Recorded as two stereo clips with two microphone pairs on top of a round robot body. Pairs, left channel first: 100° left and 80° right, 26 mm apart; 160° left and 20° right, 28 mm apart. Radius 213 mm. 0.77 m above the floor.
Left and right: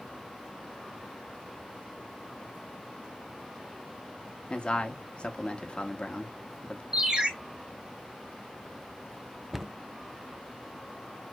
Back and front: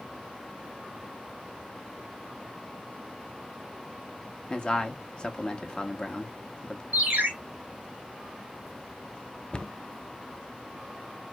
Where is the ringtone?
30° right, 1.2 m.